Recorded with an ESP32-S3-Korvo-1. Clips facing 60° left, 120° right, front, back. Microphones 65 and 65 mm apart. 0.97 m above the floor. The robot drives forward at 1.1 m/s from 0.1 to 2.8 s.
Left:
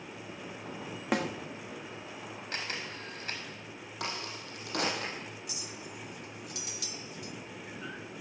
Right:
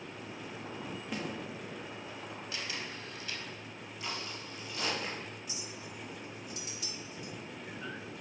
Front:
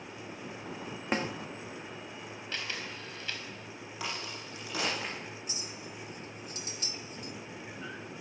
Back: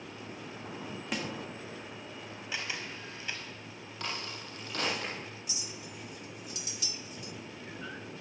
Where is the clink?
50° left, 1.7 m.